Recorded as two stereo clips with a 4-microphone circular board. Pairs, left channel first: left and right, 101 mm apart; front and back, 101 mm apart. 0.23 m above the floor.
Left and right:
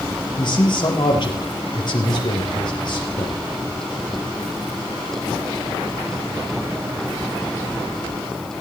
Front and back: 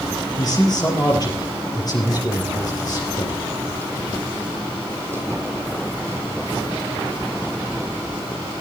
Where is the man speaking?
50° left, 4.5 m.